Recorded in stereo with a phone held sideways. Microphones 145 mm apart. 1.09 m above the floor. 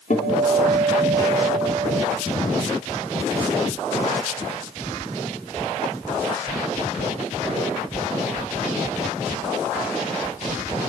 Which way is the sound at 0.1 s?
60° left (ahead or behind).